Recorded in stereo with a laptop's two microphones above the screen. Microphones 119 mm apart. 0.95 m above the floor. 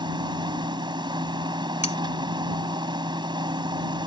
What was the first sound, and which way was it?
A machine running, 40° right (ahead or behind).